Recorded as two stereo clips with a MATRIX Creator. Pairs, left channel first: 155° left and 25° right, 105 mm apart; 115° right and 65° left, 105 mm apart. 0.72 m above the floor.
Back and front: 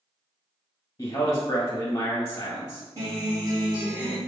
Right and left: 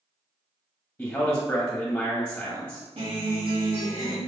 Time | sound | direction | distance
1.0 | a man speaking | 170° right | 1.2 m
3.0 | a guitar | 35° left | 1.6 m